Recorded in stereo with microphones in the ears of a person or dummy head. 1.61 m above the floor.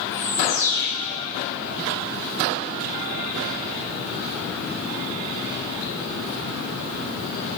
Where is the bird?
15° left (ahead or behind), 2.5 m.